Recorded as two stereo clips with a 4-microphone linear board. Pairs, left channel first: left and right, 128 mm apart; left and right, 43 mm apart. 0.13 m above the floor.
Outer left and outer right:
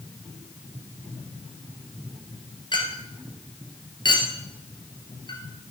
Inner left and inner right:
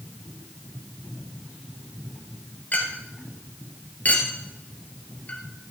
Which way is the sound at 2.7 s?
40° left (ahead or behind).